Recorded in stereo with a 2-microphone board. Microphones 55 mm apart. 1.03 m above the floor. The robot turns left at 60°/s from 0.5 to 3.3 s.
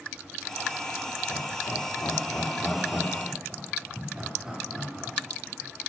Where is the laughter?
75° left (ahead or behind), 2.5 m; by 5.2 s 15° right (ahead or behind), 2.5 m.